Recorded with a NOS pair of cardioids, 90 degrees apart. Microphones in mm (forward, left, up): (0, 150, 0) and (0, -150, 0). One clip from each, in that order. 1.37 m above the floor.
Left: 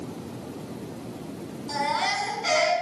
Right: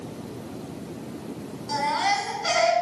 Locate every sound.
1.7 s a baby crying: 10° right, 4.5 m